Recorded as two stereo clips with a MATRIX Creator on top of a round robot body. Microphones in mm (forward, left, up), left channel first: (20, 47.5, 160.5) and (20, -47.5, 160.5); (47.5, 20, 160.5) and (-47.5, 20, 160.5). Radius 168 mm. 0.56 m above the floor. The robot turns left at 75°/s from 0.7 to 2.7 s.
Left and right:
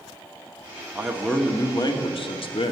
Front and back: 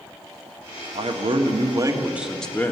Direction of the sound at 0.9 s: 165° right.